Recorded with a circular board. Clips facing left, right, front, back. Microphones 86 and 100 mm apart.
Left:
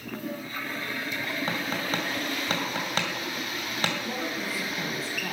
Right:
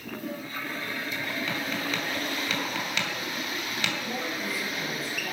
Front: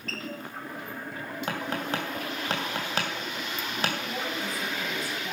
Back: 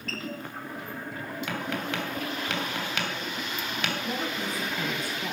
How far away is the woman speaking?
About 3 m.